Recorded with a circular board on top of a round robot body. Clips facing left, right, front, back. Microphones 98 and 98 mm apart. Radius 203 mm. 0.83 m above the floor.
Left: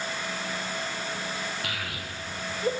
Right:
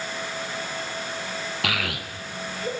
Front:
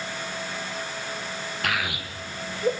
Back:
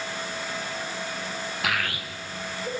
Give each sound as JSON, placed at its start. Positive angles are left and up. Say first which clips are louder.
{"t": 1.6, "sound": "a child speaking", "louder": "right 6 dB, front 1 dB", "azimuth_deg": -90, "distance_m": 1.0}